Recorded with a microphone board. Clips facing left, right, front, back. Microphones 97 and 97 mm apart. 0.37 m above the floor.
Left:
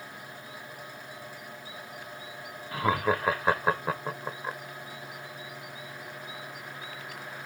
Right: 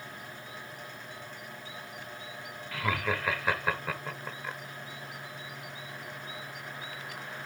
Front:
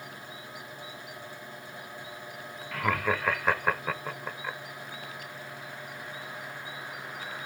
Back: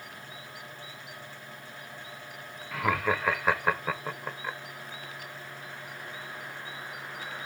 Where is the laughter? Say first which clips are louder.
Left 5 dB, back 1 dB; 95° left, 1.0 m.